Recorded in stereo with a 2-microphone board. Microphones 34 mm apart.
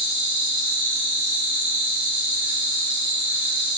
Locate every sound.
0.0 s an insect: 25° right (ahead or behind), 2.0 m